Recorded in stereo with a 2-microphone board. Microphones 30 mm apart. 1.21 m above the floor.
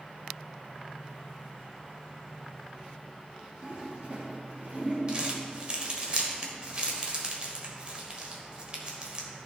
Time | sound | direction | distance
3.6 | a toilet flushing | 40° right (ahead or behind) | 2.5 m
5.1 | crumpling | 30° right (ahead or behind) | 1.5 m